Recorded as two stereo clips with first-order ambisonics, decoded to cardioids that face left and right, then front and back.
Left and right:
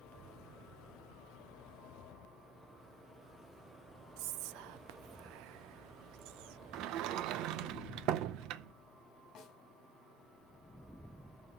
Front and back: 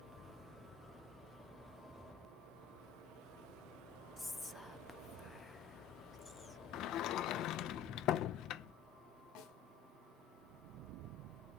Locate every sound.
4.2 s whispering: 80° right, 0.5 m
6.7 s a sliding door: 45° right, 0.7 m
9.3 s a snare drum: 30° left, 3 m